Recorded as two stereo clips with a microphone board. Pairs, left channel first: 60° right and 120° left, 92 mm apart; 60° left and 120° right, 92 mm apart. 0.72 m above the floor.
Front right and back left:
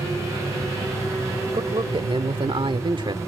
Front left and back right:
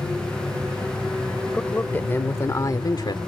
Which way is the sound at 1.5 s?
135° left.